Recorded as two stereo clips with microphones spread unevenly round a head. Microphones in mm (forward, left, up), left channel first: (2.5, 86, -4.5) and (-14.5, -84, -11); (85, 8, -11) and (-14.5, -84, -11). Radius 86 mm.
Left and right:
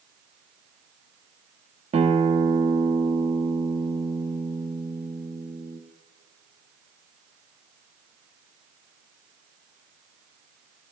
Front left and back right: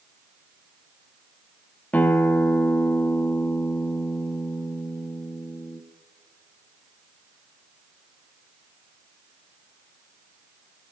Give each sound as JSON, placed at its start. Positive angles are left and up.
{"t": 1.9, "sound": "a guitar", "azimuth_deg": -35, "distance_m": 1.2}